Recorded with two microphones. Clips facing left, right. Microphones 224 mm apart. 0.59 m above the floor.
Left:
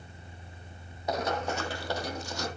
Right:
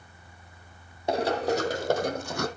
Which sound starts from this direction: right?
Running footsteps, at 1.1 s.